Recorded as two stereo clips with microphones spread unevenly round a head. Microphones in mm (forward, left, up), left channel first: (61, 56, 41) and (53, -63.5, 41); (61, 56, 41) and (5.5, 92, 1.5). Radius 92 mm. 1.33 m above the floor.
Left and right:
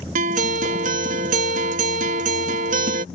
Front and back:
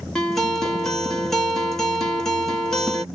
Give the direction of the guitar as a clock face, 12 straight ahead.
4 o'clock.